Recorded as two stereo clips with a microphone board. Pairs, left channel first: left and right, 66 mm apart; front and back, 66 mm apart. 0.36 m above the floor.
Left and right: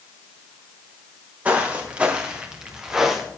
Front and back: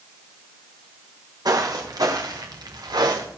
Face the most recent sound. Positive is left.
turn(degrees=180)